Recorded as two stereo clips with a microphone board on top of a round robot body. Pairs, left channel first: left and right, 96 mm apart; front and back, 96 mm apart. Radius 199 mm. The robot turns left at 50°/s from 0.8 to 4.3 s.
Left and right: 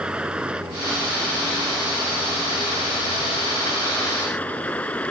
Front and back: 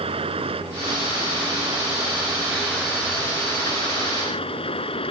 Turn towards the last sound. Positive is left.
turn(degrees=15)